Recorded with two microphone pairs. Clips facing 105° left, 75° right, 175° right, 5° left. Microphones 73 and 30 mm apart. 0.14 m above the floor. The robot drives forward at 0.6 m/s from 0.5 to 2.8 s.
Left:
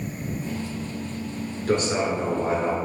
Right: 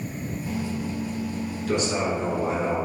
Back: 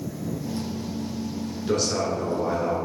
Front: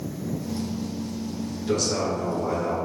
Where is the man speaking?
120° left, 1.6 m; by 2.8 s 140° left, 1.9 m.